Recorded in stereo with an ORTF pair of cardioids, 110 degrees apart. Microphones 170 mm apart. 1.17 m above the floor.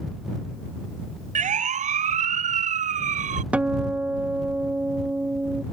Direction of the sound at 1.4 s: 45° right.